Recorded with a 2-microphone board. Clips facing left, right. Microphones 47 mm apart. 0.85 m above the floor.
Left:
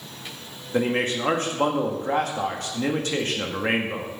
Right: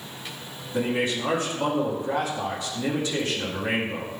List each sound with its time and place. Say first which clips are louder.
0.7 s a man speaking: left 2 dB; 55° left (ahead or behind), 1.7 m